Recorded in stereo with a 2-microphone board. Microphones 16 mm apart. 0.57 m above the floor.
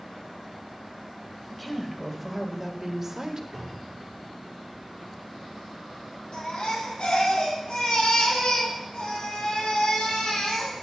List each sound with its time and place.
1.5 s a woman speaking: 15° left (ahead or behind), 2.5 m; by 3.4 s 30° right (ahead or behind), 1.7 m
3.5 s a cupboard door: 15° right (ahead or behind), 7.5 m
6.3 s a baby crying: 60° left (ahead or behind), 6.5 m